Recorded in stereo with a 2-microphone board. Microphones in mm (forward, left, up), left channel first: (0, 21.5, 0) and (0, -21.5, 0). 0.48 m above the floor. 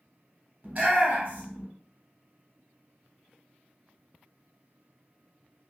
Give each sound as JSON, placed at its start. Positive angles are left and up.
{"t": 0.6, "sound": "a shout", "side_deg": -40, "distance_m": 1.2}